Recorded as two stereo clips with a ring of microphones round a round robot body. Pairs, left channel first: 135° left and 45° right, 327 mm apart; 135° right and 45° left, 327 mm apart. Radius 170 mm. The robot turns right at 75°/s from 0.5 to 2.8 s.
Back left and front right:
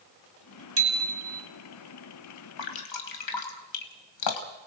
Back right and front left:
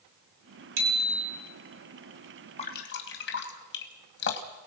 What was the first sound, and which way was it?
A bicycle bell, 5° left.